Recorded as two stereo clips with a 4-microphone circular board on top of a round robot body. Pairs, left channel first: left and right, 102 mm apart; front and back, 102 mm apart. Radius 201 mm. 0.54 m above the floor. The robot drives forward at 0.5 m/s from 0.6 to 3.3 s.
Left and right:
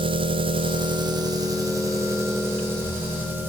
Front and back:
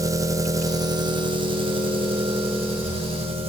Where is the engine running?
120° right, 0.8 m; by 3.5 s 160° right, 1.9 m.